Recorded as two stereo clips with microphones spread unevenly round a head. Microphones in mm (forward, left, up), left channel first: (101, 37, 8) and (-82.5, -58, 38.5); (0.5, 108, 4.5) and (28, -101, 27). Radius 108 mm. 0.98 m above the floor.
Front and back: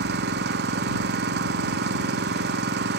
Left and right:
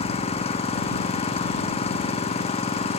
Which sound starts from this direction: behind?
An engine running, at 0.0 s.